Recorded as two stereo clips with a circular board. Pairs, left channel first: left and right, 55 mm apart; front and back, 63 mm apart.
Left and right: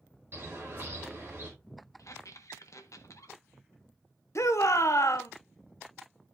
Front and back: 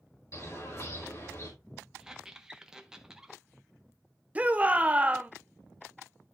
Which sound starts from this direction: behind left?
A shout, at 4.3 s.